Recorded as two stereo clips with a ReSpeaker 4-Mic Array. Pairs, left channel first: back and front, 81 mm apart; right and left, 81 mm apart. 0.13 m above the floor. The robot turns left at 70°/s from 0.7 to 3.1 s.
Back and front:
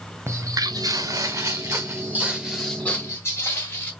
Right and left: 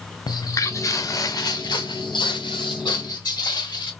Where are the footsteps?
60° right, 0.7 m; by 3.9 s 115° right, 1.8 m.